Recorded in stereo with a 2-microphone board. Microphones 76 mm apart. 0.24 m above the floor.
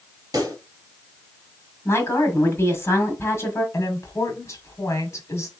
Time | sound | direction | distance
0.3 | a pop | 55° right (ahead or behind) | 2.5 m
1.9 | a woman speaking | 35° left (ahead or behind) | 1.7 m
3.7 | a woman speaking | 40° left (ahead or behind) | 1.3 m